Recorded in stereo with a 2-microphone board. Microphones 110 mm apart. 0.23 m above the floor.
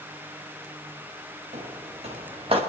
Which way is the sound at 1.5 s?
70° right (ahead or behind).